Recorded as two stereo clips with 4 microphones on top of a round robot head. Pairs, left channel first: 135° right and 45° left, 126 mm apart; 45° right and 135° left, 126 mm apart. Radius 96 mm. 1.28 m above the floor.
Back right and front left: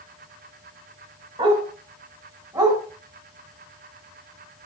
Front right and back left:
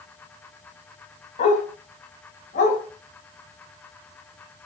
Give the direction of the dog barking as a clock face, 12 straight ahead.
12 o'clock.